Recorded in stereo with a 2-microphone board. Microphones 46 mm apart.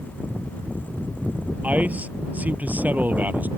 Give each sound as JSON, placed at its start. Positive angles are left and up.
{"t": 1.6, "sound": "a man speaking", "side_deg": -30}